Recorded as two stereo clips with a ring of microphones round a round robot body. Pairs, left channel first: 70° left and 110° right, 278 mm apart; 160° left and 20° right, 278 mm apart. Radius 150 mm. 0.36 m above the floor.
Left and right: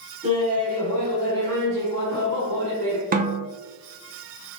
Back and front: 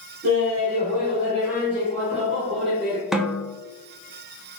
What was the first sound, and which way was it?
Laughter, 60° right.